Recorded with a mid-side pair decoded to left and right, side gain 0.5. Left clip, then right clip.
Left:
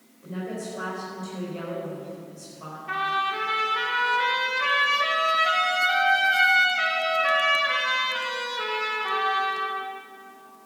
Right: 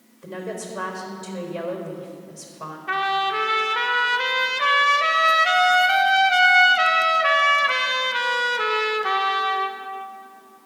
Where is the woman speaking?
65° right, 4 m.